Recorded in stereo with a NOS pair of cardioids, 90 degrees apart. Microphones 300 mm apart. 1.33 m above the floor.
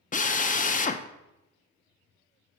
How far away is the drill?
About 0.6 m.